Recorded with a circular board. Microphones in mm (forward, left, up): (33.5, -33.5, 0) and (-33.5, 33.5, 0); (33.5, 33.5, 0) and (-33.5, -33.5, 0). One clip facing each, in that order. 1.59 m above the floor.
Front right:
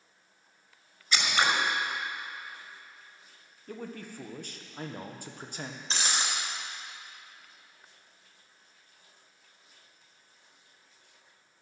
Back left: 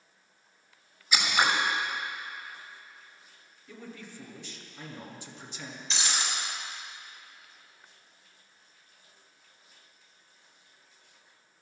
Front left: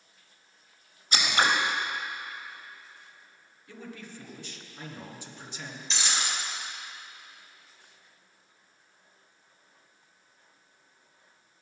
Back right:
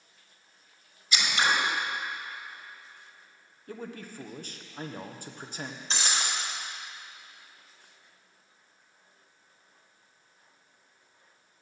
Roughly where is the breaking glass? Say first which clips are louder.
Front right 1 dB, even; right.